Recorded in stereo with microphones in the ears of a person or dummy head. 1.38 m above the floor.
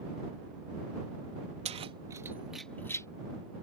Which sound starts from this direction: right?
Keys jangling, at 1.6 s.